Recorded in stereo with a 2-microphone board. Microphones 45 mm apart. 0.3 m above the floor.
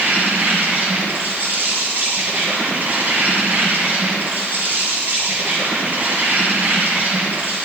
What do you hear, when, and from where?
0.0 s an insect: 45° right (ahead or behind), 3 m